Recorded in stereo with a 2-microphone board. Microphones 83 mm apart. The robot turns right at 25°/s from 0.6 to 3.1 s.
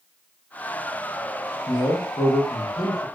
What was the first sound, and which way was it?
A man speaking, 75° left.